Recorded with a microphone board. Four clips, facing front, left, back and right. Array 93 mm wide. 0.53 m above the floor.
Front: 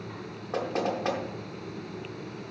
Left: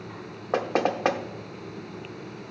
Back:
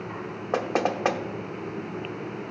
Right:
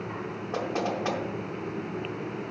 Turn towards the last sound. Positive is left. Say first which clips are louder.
# left 5 dB, back 4 dB
turn(degrees=130)